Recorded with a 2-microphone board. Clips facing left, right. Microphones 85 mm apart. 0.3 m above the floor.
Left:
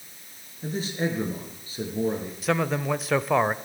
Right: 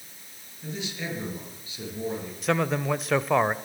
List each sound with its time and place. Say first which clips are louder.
0.6 s a man speaking: left 6 dB; 40° left (ahead or behind), 6 m
2.4 s a man speaking: even; centre (ahead or behind), 0.9 m